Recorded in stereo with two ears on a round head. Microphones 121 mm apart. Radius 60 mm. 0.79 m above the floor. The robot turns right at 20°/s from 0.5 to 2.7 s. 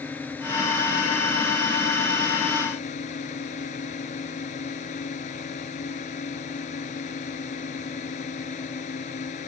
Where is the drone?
15° left; by 9.5 s 55° left.